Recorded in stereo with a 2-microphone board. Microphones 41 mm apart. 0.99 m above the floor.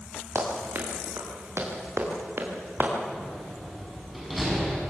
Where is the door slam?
Centre (ahead or behind), 7.5 m.